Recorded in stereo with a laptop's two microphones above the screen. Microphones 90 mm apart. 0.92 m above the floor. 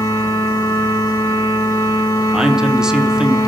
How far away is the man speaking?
About 0.6 m.